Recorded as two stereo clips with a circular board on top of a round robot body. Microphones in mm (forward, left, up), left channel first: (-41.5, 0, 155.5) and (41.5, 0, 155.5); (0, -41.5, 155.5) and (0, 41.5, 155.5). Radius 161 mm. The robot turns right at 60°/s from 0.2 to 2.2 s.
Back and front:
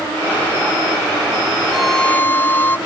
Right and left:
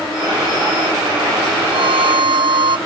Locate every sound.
1.7 s a violin: 80° left; by 2.8 s 110° left